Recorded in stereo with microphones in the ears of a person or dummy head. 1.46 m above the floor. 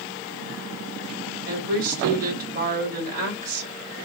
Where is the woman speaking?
45° right (ahead or behind), 4.5 m.